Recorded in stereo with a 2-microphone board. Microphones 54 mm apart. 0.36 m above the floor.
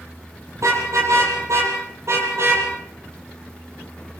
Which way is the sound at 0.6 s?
75° right (ahead or behind).